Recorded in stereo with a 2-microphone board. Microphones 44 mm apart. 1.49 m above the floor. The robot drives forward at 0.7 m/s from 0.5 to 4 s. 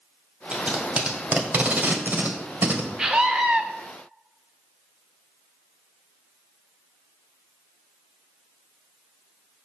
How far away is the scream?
About 1.5 m.